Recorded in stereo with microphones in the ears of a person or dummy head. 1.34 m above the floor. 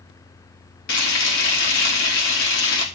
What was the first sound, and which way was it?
Frying, 70° left (ahead or behind).